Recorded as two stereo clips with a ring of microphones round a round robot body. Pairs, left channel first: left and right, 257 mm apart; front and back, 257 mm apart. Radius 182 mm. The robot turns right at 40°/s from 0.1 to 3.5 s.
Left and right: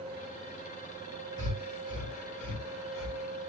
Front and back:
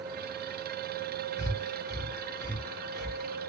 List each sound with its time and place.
1.4 s breathing: 10° left, 3.5 m; by 3.2 s 85° left, 3.5 m